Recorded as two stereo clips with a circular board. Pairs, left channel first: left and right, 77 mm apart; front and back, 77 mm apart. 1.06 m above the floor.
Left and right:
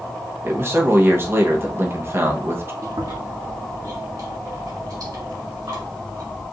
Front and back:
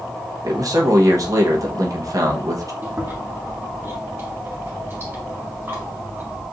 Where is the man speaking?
145° right, 1.1 m.